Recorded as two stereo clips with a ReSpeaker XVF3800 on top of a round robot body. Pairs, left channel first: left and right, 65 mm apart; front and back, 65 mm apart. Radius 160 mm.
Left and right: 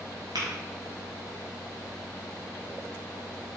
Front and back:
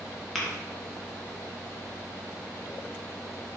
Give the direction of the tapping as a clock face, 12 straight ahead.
3 o'clock.